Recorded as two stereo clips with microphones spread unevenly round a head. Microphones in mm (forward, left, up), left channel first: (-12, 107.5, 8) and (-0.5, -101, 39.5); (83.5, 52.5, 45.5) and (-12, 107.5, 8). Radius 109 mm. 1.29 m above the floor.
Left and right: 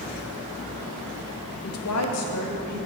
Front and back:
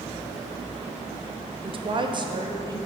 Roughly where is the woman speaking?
Behind left.